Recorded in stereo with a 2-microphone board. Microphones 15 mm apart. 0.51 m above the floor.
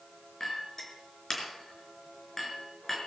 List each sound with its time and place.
0.4 s a clink: 25° left (ahead or behind), 4 m